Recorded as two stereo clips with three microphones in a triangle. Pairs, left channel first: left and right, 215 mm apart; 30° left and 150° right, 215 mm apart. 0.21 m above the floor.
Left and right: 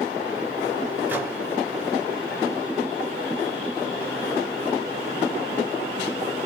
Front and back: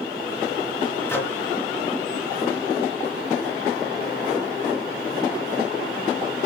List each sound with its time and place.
1.1 s a microwave: 25° right, 0.8 m